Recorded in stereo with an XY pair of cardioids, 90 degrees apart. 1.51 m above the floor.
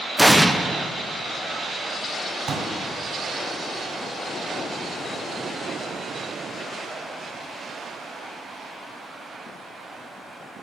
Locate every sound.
0.2 s an explosion: straight ahead, 0.9 m
2.5 s a pop: 50° right, 4 m